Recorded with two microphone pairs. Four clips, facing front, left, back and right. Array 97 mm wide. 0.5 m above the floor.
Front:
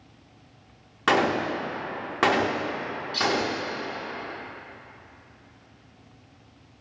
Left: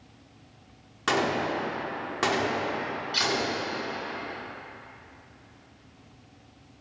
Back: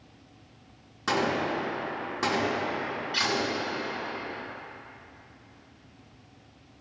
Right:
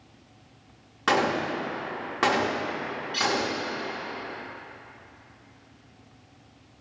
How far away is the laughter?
No laughter in this recording.